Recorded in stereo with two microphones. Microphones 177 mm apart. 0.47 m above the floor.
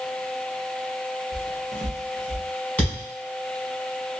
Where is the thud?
10° left (ahead or behind), 1.6 m.